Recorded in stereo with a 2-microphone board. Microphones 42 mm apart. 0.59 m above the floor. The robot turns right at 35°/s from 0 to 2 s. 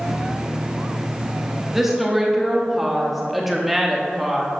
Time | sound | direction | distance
1.7 | a woman speaking | 10° right (ahead or behind) | 0.9 m